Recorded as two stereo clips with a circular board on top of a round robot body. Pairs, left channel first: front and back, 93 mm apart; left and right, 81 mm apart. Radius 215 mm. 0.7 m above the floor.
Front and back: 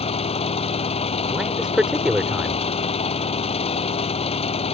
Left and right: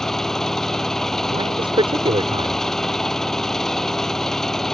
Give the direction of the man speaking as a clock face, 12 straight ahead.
3 o'clock.